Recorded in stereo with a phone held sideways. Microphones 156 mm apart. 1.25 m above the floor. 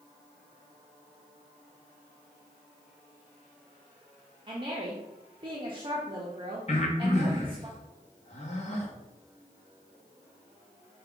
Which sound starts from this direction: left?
Breathing, at 6.7 s.